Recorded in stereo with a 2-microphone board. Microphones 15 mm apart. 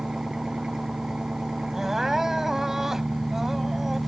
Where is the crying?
35° right (ahead or behind).